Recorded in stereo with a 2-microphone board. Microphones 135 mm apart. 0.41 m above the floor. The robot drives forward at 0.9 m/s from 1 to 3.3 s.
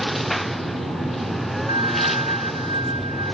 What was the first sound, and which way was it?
A lawn mower, centre (ahead or behind).